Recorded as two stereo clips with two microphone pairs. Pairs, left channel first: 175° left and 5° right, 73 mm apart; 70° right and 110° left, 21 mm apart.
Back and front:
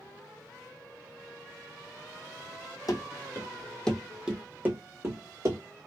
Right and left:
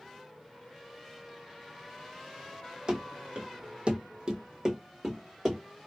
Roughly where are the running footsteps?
Behind left.